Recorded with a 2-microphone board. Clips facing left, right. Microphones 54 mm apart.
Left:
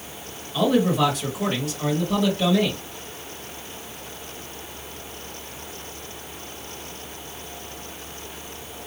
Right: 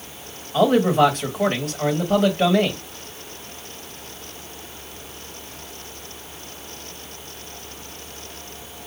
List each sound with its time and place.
0.5 s a man speaking: 45° right (ahead or behind), 1.7 m